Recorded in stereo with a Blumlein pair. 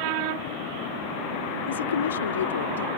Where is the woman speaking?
65° left.